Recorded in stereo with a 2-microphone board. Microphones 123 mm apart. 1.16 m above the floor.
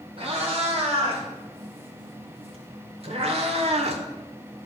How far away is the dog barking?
No dog barking in this recording.